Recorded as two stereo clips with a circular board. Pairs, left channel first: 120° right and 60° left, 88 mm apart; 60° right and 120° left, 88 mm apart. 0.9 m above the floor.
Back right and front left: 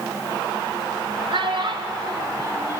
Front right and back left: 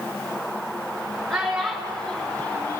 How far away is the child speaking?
About 3 m.